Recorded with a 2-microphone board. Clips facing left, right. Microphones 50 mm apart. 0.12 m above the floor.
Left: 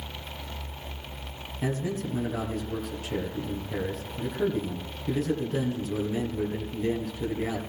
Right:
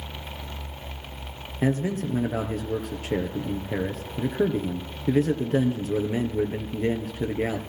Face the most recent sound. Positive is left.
turn(degrees=-45)  # may be behind; listen again after turning